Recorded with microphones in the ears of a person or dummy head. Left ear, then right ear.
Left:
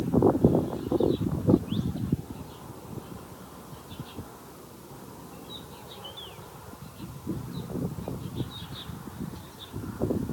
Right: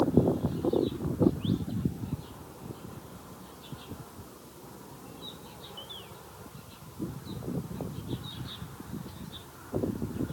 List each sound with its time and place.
Only background noise.